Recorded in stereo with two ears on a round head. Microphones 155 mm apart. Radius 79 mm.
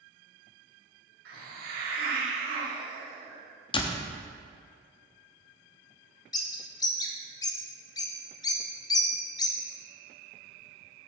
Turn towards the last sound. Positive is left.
turn(degrees=20)  # may be behind; listen again after turning